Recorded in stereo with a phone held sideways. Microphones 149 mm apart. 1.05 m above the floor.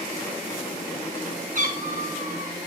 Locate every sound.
1.6 s a cat meowing: 60° right (ahead or behind), 2.5 m